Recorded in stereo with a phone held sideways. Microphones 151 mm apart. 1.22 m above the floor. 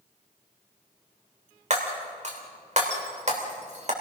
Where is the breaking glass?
50° right (ahead or behind), 3 m.